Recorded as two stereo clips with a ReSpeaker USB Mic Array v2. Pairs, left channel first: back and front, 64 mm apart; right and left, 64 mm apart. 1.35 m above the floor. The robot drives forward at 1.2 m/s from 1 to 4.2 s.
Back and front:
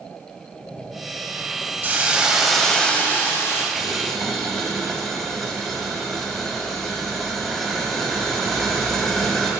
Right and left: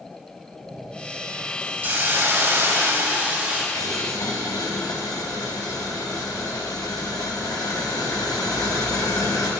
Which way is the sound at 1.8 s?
45° left.